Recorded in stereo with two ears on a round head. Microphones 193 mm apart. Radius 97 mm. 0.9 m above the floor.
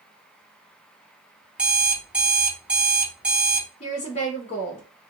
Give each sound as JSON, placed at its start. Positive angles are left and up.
{"t": 1.6, "sound": "an alarm clock", "side_deg": -5, "distance_m": 0.5}
{"t": 3.8, "sound": "a woman speaking", "side_deg": 30, "distance_m": 0.9}